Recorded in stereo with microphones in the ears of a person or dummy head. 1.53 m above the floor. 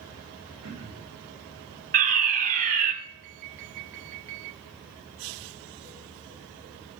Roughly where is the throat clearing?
Right.